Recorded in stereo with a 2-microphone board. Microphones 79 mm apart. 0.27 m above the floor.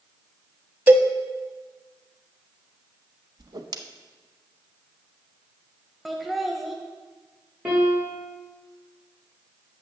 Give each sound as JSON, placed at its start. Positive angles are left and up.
{"t": 0.9, "sound": "a cowbell", "side_deg": -20, "distance_m": 0.7}
{"t": 3.4, "sound": "a whoosh", "side_deg": -55, "distance_m": 0.7}
{"t": 6.0, "sound": "laughter", "side_deg": 0, "distance_m": 1.0}
{"t": 7.7, "sound": "a piano", "side_deg": -15, "distance_m": 4.5}